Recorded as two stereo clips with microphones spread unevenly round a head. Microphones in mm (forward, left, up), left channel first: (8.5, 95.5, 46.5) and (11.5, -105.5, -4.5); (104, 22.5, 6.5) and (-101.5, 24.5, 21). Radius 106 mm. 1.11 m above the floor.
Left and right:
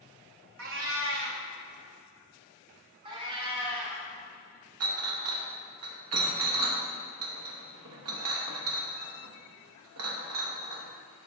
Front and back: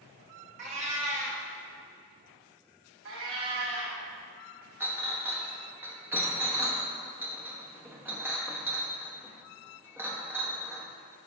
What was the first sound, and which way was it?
A cat meowing, 120° right.